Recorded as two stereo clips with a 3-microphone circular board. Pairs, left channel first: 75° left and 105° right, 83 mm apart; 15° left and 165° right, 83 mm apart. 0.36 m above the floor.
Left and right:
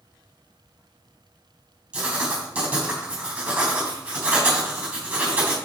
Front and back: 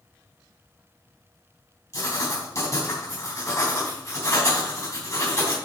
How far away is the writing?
About 3.5 m.